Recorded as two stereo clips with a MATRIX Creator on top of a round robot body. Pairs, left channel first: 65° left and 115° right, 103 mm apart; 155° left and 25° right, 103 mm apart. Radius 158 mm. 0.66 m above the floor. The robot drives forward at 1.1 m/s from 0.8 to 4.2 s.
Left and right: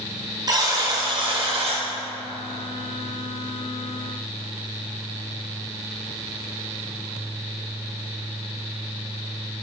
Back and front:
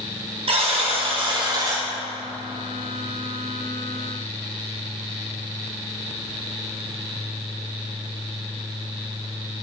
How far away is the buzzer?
About 2.5 m.